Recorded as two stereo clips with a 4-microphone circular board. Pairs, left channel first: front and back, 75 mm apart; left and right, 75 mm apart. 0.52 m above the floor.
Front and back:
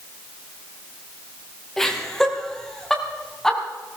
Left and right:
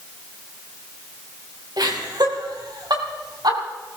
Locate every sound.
1.8 s laughter: 85° right, 4 m